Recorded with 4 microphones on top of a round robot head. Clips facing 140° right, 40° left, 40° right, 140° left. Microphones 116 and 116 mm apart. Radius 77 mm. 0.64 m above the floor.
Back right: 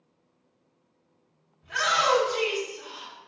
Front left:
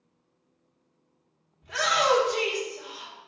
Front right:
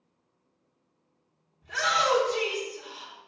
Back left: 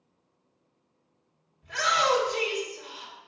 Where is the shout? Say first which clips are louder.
Front left 1 dB, back left 1 dB; 10° right, 2.5 m.